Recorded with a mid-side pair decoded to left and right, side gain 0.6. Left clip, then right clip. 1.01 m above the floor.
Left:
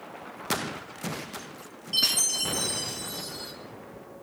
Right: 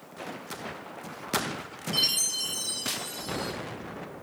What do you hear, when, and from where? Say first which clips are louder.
1.9 s a chime: left 2 dB; 15° left, 2.0 m